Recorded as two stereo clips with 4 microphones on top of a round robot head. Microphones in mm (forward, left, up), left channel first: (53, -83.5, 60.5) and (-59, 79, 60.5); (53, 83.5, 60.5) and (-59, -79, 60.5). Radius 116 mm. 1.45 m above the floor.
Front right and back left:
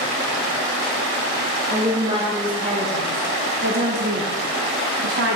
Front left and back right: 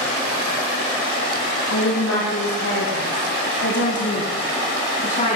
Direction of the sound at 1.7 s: 50° left.